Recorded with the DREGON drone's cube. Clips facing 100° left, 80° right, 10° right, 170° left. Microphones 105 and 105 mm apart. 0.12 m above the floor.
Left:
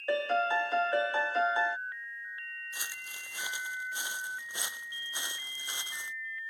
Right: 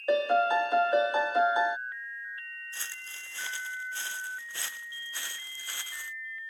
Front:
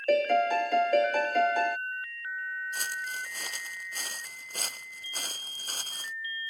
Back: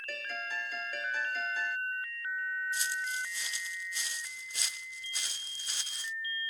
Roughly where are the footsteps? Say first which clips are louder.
Even, even; ahead left.